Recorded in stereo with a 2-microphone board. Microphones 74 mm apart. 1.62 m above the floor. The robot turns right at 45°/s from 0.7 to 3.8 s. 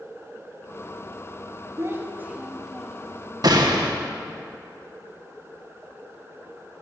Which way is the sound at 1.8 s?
45° right.